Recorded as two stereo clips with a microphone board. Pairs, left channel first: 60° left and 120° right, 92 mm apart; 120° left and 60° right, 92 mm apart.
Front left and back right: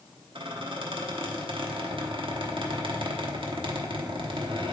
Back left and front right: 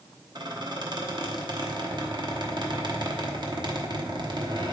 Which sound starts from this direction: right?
A squeak, at 0.3 s.